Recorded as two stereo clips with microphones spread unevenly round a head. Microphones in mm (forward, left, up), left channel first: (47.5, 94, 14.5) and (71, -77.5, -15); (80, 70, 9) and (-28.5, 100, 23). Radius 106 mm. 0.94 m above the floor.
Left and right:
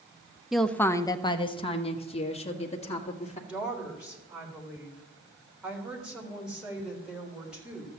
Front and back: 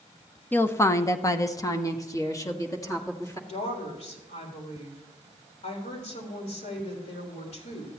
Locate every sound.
0.5 s a woman speaking: 25° right, 0.6 m; by 3.4 s 45° left, 2.5 m
3.5 s a woman speaking: straight ahead, 3.5 m